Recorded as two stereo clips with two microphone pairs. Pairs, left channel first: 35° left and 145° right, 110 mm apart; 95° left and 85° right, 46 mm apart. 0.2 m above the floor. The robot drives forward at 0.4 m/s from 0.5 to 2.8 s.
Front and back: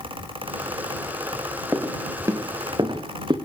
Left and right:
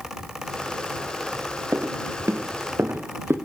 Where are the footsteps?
80° right, 3 m; by 3.4 s 100° right, 4 m.